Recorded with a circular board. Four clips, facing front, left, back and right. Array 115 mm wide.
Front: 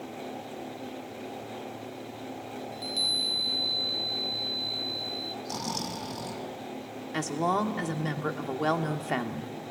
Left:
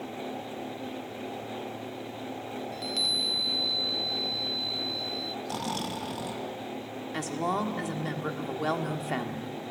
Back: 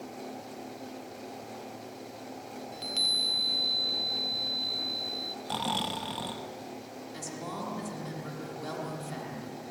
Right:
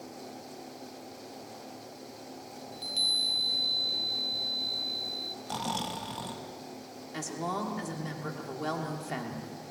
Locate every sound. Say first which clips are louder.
2.7 s a chime: left 7 dB, front 3 dB; 135° left, 0.8 m
5.5 s snoring: right 1 dB, back 4 dB; 175° right, 1.0 m
7.1 s a woman speaking: left 4 dB, front 12 dB; 20° left, 1.6 m